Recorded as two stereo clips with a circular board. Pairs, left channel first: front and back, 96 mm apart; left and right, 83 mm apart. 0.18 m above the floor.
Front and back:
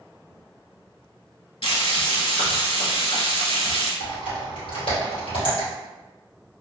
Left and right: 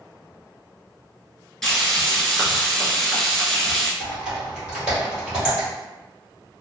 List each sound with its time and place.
1.6 s frying: 10° left, 0.8 m
4.0 s typing on a keyboard: 10° right, 1.9 m